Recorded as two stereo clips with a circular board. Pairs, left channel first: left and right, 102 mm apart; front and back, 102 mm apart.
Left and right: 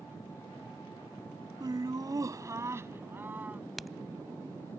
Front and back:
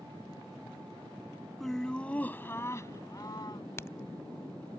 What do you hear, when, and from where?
1.6 s laughter: 85° right; by 3.6 s 20° right
3.8 s a crack: straight ahead